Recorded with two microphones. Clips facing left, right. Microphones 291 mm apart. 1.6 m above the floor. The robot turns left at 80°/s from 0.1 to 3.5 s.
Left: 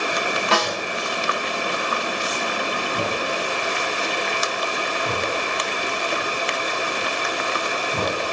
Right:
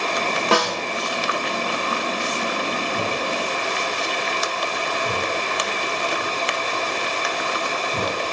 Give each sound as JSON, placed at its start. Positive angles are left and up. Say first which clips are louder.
{"t": 0.5, "sound": "a snare drum", "louder": "right 4 dB", "side_deg": -55, "distance_m": 7.0}